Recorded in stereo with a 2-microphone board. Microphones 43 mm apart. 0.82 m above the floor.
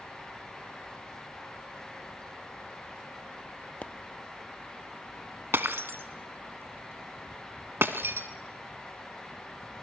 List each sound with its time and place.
3.8 s a pop: 30° left (ahead or behind), 0.6 m
5.5 s breaking glass: 60° right (ahead or behind), 1.2 m